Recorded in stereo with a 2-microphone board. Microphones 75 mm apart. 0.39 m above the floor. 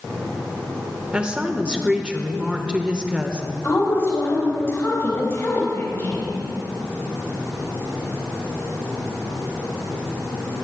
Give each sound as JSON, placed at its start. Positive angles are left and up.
{"t": 1.1, "sound": "a woman speaking", "side_deg": -15, "distance_m": 1.0}
{"t": 3.6, "sound": "a woman speaking", "side_deg": 35, "distance_m": 3.5}